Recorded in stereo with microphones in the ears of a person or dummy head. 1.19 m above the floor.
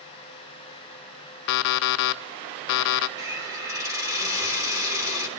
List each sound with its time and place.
1.5 s an alarm clock: 55° left (ahead or behind), 0.6 m
3.2 s a hiss: 15° right (ahead or behind), 3 m